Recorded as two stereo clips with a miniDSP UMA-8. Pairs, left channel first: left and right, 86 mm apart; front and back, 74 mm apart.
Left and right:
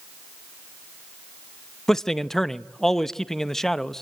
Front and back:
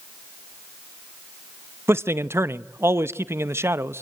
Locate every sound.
1.9 s a man speaking: 175° left, 0.6 m